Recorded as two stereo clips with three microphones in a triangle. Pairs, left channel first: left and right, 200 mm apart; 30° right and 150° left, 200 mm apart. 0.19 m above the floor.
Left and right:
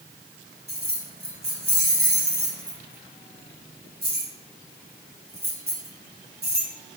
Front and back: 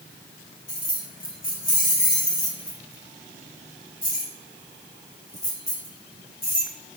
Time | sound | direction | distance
0.7 | keys jangling | 65° right | 1.2 m